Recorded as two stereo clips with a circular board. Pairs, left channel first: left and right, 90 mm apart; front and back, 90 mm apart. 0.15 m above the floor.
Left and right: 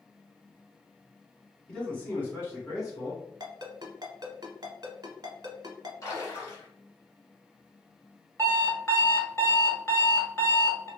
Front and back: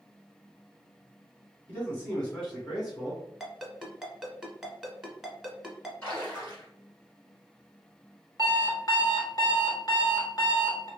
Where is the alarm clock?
35° left, 1.0 m.